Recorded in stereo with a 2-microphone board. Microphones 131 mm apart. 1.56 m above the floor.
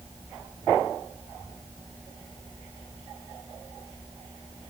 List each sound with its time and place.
Only background noise.